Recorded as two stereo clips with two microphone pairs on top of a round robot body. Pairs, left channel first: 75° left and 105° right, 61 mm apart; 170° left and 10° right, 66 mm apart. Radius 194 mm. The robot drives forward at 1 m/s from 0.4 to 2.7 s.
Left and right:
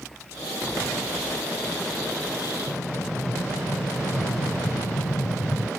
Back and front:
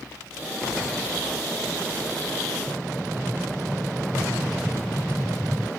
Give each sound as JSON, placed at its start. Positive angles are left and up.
{"t": 2.7, "sound": "an explosion", "azimuth_deg": 70}